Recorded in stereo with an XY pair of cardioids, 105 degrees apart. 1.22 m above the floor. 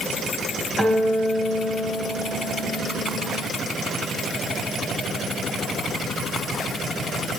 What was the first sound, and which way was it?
A guitar, 30° right.